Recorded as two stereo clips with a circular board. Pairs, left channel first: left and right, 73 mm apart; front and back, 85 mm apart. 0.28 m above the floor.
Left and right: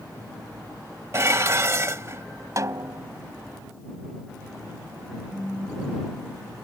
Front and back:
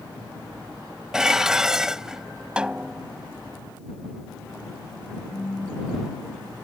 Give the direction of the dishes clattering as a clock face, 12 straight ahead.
3 o'clock.